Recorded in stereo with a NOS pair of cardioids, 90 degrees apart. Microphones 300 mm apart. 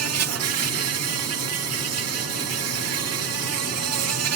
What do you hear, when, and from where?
0.0 s an insect: 55° right